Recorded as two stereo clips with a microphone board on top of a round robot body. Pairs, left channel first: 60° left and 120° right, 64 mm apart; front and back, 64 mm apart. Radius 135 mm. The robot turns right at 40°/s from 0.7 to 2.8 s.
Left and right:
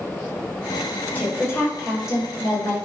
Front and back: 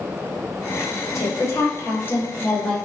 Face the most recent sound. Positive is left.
turn(degrees=75)